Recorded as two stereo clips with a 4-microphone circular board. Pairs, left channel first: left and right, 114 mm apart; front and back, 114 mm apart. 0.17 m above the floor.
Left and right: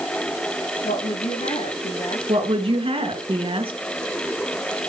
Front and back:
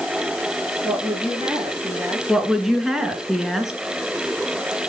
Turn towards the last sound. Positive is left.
turn(degrees=-95)